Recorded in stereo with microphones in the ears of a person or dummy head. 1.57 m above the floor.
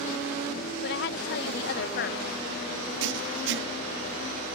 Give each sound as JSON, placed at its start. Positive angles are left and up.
{"t": 0.8, "sound": "a woman speaking", "side_deg": 65}
{"t": 3.0, "sound": "writing", "side_deg": -70}